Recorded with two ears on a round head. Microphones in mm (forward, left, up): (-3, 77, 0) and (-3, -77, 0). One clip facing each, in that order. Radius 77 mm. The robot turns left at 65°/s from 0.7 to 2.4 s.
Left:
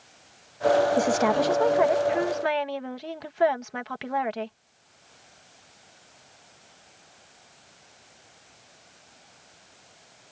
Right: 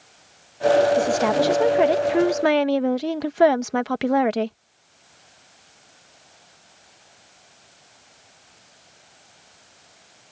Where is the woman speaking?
20° left; by 4.6 s 75° right.